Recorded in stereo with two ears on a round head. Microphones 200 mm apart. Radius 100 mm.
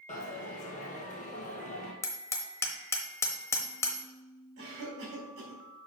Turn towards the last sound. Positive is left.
turn(degrees=-60)  # may be behind; listen again after turning